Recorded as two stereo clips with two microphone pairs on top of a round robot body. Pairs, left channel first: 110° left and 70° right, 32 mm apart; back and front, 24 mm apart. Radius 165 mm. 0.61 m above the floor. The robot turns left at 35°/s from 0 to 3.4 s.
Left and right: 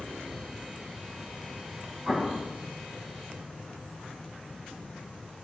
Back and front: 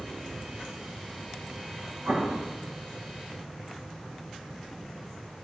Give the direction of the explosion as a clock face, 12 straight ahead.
12 o'clock.